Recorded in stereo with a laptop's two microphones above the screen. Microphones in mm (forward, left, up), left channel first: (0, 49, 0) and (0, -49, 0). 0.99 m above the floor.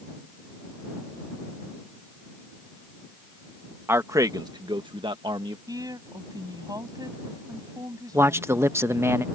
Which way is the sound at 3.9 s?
25° right (ahead or behind).